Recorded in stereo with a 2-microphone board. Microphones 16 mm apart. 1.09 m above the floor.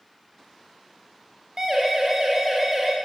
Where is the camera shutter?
No camera shutter in this recording.